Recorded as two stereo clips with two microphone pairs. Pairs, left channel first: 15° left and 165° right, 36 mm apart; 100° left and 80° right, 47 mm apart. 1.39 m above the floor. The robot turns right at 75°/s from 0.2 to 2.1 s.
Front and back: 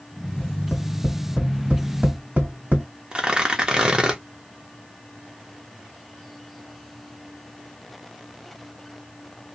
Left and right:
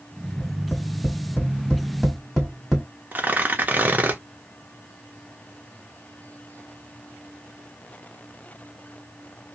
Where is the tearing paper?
110° right, 0.7 m.